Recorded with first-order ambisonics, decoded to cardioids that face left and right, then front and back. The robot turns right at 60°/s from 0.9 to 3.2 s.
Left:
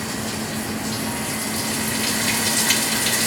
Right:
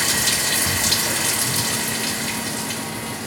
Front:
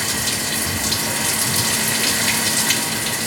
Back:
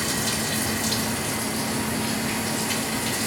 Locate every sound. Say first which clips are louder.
0.0 s running water: right 7 dB, front 4 dB; 70° right, 0.7 m; by 3.3 s 70° left, 0.7 m